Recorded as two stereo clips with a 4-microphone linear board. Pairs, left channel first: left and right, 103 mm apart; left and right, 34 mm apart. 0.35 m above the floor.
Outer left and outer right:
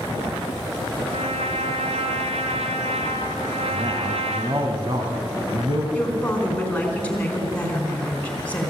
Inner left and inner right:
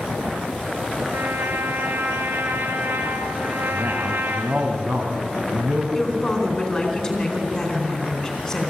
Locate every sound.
1.1 s a trumpet: 85° right, 1.8 m
3.7 s a man speaking: 50° right (ahead or behind), 3 m
5.9 s a woman speaking: 15° left (ahead or behind), 4 m